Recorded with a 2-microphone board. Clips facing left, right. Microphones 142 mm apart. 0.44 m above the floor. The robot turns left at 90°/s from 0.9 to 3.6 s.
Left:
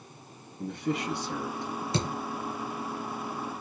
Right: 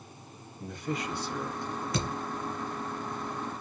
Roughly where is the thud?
Left.